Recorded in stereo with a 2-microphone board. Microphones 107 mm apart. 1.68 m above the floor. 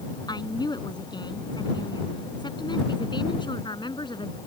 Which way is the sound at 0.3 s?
40° left (ahead or behind).